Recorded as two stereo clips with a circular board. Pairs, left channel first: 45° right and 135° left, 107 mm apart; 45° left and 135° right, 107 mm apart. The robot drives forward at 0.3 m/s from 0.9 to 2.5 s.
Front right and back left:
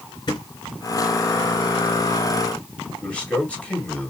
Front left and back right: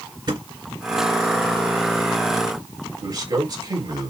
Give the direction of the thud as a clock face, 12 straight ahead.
3 o'clock.